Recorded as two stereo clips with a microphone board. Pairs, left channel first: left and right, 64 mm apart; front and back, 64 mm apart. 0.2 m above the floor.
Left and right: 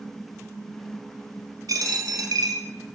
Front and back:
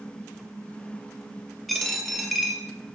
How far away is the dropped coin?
About 1.2 m.